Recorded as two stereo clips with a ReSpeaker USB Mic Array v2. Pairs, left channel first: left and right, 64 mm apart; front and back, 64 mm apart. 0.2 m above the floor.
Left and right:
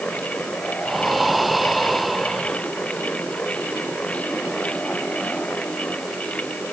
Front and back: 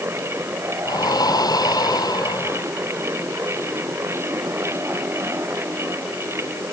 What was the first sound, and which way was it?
Breathing, straight ahead.